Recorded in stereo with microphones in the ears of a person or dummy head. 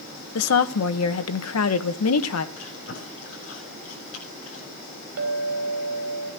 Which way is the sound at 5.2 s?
75° right (ahead or behind).